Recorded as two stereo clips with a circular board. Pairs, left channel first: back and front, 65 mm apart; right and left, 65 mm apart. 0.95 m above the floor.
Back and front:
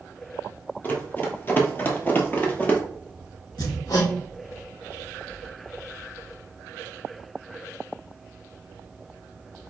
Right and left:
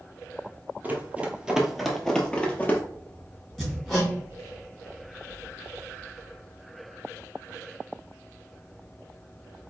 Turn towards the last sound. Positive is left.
turn(degrees=-175)